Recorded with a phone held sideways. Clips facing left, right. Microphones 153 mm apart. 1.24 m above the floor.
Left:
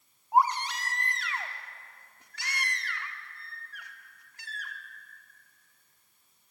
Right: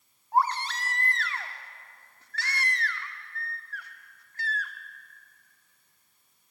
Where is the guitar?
I don't hear a guitar.